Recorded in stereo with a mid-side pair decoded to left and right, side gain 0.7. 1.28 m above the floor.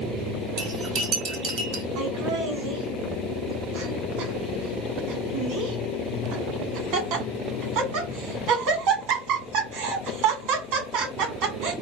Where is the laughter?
60° right, 1.5 m.